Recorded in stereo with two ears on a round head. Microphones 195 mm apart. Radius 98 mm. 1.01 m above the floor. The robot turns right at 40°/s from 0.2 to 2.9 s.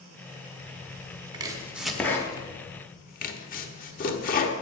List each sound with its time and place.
1.3 s chopping: 20° right (ahead or behind), 0.9 m; by 4.5 s 40° left (ahead or behind), 0.9 m